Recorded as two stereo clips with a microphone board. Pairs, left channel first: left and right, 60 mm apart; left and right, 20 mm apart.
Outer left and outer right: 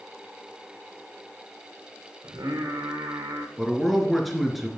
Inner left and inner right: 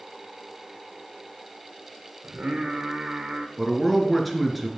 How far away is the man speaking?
About 2 m.